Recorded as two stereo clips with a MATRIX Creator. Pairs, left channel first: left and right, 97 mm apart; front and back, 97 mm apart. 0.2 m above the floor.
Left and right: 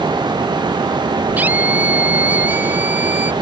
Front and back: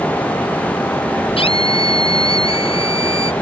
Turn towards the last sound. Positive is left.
turn(degrees=-15)